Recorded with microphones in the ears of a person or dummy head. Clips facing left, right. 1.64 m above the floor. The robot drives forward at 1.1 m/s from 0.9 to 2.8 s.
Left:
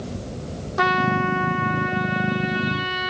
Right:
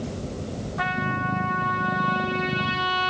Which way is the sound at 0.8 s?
65° left (ahead or behind).